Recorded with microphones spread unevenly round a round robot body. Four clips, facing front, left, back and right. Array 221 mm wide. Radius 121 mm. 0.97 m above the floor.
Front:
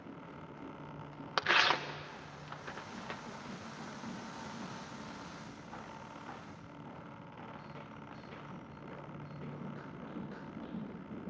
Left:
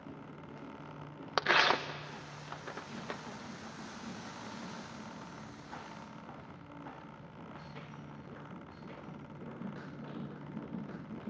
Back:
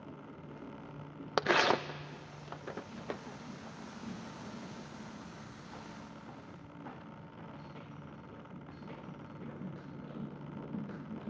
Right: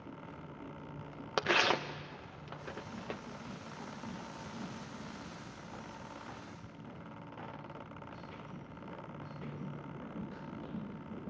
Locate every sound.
1.4 s tearing paper: 160° right, 0.5 m